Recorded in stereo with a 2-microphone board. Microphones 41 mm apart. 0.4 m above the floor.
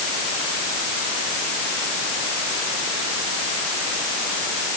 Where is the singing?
I don't hear singing.